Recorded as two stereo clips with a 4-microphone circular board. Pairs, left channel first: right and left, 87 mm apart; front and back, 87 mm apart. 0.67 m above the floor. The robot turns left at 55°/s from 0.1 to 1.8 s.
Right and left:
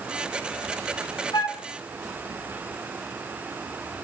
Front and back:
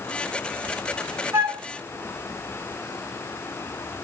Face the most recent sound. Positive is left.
turn(degrees=-140)